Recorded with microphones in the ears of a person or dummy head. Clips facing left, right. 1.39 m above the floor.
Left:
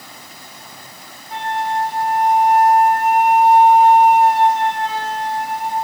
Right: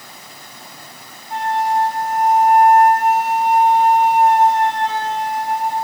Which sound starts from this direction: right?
A flute, at 1.3 s.